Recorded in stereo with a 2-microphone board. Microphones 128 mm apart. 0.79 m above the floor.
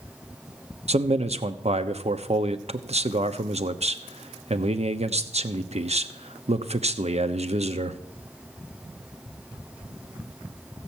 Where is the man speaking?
55° right (ahead or behind), 0.9 m.